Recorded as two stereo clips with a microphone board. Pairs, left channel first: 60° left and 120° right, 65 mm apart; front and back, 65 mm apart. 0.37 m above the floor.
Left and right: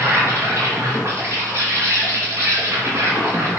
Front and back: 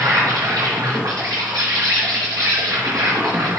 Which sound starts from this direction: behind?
An insect, at 0.0 s.